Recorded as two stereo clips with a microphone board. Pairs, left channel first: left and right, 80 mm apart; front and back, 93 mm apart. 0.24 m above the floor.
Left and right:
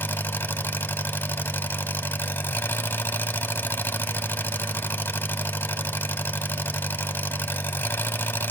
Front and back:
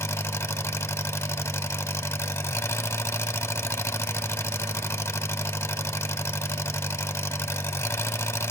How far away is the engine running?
About 0.9 m.